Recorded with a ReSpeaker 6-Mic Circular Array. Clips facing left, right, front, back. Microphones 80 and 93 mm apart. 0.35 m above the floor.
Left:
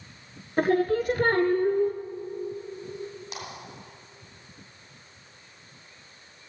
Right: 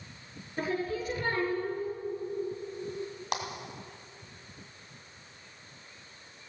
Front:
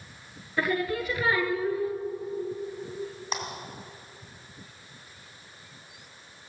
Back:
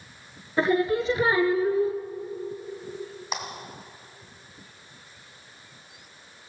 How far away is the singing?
About 0.8 m.